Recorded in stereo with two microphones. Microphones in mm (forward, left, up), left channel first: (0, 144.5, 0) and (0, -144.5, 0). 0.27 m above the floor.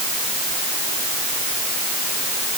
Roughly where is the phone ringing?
I don't hear a phone ringing.